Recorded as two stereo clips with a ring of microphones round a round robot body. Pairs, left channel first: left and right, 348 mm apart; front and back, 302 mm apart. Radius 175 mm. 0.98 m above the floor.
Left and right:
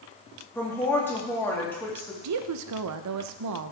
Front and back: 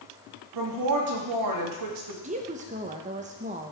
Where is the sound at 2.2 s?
115° right, 0.6 m.